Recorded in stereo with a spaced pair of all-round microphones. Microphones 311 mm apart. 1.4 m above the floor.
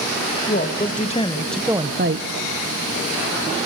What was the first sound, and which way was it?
A woman speaking, 30° left (ahead or behind).